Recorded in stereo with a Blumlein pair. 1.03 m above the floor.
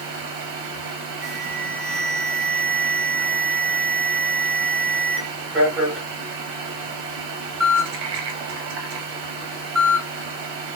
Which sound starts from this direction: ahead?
An alarm, at 1.2 s.